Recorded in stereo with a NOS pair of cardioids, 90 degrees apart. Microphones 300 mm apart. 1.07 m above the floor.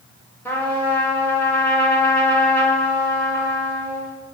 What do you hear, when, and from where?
0.5 s a trumpet: 5° left, 0.7 m